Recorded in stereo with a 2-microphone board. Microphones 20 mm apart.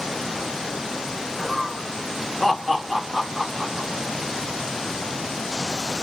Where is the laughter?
Centre (ahead or behind), 1.5 m; by 3.9 s 5° right (ahead or behind), 0.9 m.